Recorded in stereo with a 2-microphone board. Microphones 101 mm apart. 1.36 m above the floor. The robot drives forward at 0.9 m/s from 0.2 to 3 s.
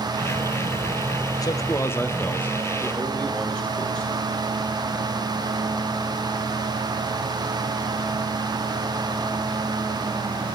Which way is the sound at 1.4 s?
40° left (ahead or behind).